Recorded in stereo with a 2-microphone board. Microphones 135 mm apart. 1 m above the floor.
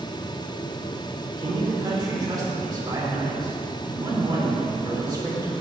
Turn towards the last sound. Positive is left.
turn(degrees=-30)  # may be behind; listen again after turning